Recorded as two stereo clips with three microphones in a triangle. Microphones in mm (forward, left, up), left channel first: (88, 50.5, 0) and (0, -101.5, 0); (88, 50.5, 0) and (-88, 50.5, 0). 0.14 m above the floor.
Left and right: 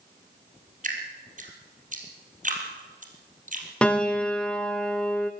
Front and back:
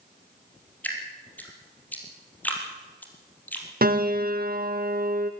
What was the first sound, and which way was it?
Dripping, 80° right.